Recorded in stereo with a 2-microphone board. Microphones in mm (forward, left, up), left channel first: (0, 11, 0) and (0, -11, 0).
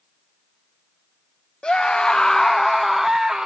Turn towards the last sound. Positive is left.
turn(degrees=-25)  # may be behind; listen again after turning